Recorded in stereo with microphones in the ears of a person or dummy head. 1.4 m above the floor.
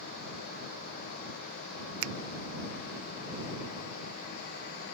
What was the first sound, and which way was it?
A finger snap, 75° right (ahead or behind).